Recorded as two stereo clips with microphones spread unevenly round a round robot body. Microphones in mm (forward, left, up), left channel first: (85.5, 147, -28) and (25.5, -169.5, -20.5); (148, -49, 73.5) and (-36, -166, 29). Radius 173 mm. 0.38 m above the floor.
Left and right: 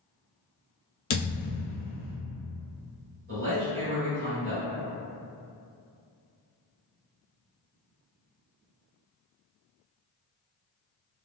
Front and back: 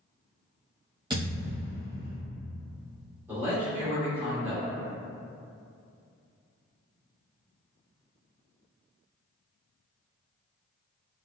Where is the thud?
130° left, 0.5 m.